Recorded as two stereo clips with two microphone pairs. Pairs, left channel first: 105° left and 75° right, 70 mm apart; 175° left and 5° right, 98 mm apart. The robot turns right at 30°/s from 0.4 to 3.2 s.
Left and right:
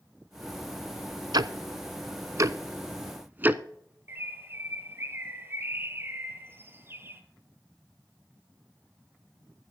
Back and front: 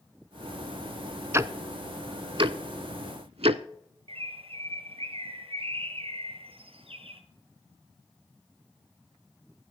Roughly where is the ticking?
Right.